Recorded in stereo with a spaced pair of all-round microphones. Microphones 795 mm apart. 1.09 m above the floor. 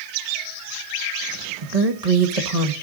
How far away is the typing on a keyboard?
No typing on a keyboard in this recording.